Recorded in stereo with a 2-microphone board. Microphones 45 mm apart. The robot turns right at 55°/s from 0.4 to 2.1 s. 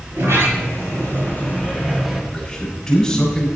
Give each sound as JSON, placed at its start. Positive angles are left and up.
{"t": 0.1, "sound": "a sliding door", "azimuth_deg": -105, "distance_m": 5.5}
{"t": 2.3, "sound": "a man speaking", "side_deg": 10, "distance_m": 7.5}